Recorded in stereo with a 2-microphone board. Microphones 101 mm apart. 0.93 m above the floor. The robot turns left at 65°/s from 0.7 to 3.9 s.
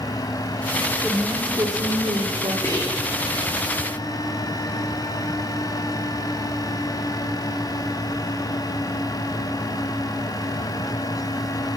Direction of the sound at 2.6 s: 25° left (ahead or behind).